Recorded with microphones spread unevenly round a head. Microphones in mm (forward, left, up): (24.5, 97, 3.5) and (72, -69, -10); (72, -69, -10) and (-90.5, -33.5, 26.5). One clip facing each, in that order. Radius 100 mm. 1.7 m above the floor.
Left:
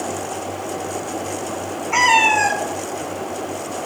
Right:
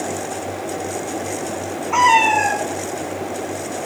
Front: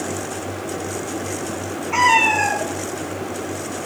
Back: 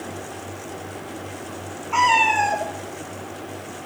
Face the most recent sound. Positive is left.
turn(degrees=80)